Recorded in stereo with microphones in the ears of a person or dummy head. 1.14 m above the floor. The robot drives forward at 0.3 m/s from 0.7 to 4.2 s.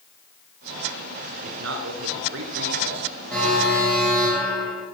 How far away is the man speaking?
About 3 m.